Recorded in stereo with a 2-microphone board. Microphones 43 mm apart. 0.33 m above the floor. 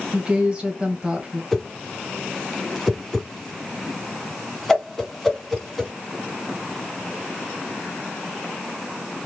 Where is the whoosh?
5° left (ahead or behind), 1.5 m.